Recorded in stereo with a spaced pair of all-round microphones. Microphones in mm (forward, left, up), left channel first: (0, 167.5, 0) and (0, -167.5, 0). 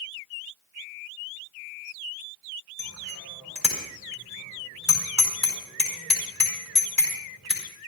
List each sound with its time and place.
2.8 s a bicycle bell: 50° right (ahead or behind), 4.5 m